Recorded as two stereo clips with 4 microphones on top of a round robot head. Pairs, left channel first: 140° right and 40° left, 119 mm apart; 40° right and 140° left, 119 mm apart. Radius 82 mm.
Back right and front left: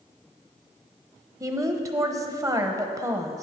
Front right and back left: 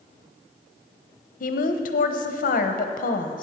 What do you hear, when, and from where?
1.4 s a woman speaking: 30° right, 0.9 m